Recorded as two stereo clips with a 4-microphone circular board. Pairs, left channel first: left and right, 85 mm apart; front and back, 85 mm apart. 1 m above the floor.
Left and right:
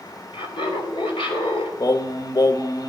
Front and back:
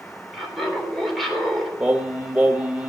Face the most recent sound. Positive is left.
turn(degrees=110)